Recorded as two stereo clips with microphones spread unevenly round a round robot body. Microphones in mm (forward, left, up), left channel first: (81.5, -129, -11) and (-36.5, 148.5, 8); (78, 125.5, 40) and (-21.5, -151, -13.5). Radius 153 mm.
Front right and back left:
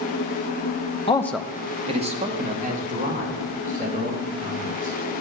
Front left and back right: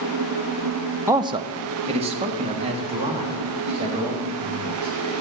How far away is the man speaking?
About 0.6 m.